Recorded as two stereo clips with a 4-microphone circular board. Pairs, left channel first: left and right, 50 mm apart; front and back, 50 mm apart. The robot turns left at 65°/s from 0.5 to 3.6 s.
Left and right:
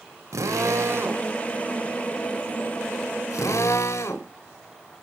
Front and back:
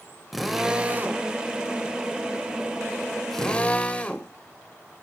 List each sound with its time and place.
0.3 s a drill: 95° right, 2 m; by 4.3 s 65° left, 2 m